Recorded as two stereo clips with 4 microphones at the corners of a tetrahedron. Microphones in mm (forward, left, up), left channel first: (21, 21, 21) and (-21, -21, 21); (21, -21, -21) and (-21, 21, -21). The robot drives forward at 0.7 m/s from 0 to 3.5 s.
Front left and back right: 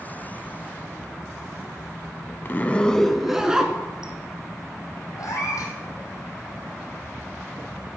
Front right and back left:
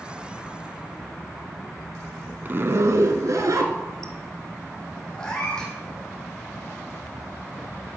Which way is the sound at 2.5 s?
85° left.